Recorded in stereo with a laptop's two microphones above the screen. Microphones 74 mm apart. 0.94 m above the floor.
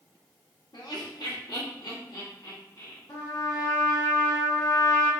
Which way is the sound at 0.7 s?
75° left (ahead or behind).